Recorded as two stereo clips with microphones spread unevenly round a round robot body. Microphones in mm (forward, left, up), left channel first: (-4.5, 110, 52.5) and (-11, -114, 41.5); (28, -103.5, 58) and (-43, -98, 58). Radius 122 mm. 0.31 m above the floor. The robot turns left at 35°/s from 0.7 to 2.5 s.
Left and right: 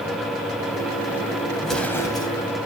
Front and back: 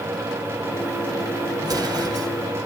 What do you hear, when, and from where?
1.6 s an explosion: straight behind, 1.9 m; by 2.3 s 155° left, 1.9 m